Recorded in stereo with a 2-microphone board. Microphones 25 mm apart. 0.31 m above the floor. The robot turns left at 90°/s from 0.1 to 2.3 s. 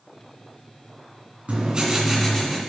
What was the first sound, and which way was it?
Writing, 125° right.